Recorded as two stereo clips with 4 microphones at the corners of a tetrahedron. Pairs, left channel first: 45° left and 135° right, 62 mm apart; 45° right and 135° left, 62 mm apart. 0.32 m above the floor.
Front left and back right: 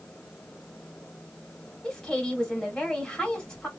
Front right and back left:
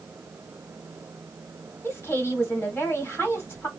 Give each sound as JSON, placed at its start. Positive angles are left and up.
{"t": 1.8, "sound": "a woman speaking", "azimuth_deg": -25, "distance_m": 1.7}